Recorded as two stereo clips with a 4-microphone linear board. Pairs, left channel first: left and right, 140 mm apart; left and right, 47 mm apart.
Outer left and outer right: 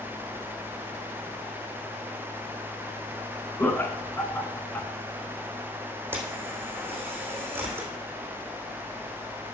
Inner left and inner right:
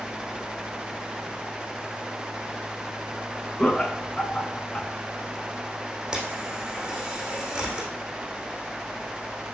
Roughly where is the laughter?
Centre.